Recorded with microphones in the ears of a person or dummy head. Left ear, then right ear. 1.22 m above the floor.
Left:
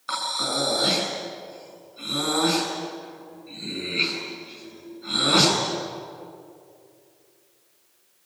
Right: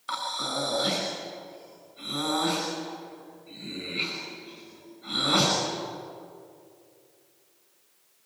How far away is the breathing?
About 6 m.